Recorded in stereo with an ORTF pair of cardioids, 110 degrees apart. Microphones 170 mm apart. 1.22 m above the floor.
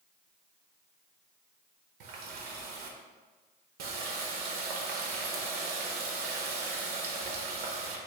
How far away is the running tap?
About 0.7 m.